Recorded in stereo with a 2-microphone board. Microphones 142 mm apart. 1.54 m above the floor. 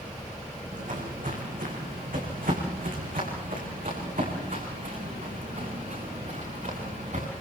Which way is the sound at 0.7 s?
65° right (ahead or behind).